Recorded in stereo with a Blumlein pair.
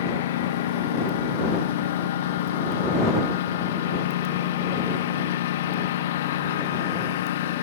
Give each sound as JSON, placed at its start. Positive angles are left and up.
{"t": 0.0, "sound": "a lawn mower", "azimuth_deg": 55}